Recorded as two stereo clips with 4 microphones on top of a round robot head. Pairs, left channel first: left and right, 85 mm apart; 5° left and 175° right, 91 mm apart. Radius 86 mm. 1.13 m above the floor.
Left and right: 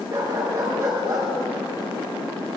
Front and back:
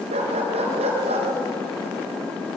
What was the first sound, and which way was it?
A dog barking, 155° right.